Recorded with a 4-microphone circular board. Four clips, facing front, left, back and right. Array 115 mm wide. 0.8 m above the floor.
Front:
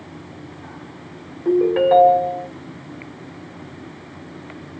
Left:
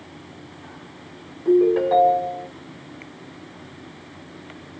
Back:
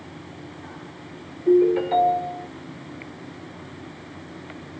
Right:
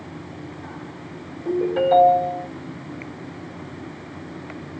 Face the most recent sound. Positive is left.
turn(degrees=10)